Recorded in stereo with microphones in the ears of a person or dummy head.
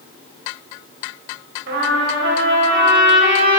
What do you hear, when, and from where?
1.7 s a trumpet: 70° right (ahead or behind), 4 m